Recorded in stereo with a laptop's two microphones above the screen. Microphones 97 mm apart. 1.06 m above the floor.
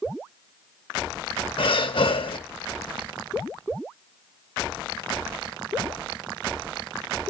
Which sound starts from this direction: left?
Breathing, at 1.6 s.